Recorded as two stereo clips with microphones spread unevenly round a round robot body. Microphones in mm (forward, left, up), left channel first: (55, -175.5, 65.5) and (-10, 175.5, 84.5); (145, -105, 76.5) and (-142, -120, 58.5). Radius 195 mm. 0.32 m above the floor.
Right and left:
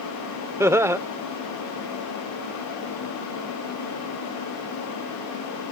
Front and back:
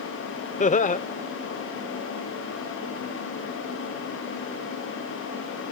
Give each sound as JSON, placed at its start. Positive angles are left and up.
{"t": 0.6, "sound": "laughter", "azimuth_deg": 20}